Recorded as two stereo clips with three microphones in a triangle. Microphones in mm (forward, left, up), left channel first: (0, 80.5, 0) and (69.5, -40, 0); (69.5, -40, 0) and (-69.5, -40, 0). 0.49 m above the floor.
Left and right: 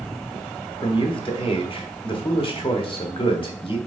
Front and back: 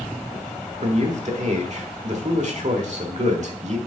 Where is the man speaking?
165° left, 1.2 m.